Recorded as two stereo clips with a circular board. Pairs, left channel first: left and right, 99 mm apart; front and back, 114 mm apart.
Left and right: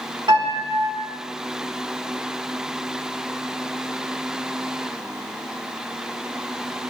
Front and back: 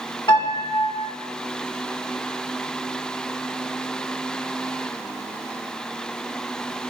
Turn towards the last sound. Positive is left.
turn(degrees=-45)